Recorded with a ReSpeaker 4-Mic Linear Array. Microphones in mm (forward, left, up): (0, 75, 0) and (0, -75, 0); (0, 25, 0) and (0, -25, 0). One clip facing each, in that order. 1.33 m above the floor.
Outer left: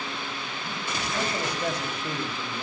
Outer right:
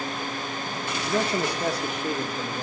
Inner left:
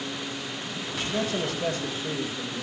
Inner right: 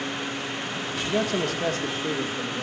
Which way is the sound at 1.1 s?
80° right.